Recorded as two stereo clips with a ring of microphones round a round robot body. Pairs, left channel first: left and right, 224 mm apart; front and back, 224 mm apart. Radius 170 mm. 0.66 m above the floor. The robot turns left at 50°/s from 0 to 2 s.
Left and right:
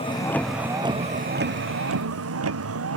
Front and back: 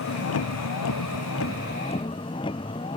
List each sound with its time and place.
0.0 s a vehicle: 25° left; by 3.0 s 75° right